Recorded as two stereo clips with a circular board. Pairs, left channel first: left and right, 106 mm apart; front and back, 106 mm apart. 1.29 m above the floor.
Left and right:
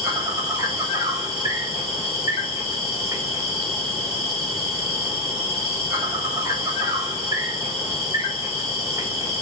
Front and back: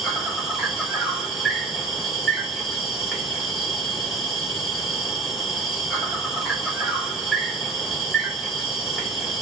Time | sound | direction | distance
0.0 | an insect | 90° right | 1.2 m